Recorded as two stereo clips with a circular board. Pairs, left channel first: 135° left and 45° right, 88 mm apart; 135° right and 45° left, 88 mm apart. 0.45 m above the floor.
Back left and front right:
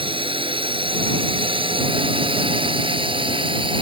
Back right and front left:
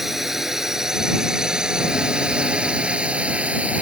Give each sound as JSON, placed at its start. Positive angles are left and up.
{"t": 0.0, "sound": "a drone", "azimuth_deg": -40}